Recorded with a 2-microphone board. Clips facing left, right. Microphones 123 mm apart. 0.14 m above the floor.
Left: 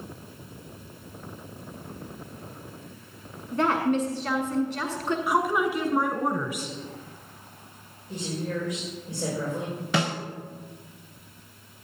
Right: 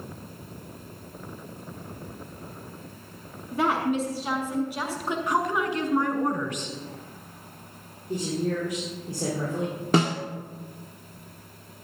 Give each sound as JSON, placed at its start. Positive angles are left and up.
{"t": 3.5, "sound": "a woman speaking", "side_deg": -10, "distance_m": 1.3}
{"t": 5.3, "sound": "a woman speaking", "side_deg": 10, "distance_m": 1.3}
{"t": 8.1, "sound": "a woman speaking", "side_deg": -55, "distance_m": 4.5}
{"t": 9.9, "sound": "a snare drum", "side_deg": -40, "distance_m": 1.3}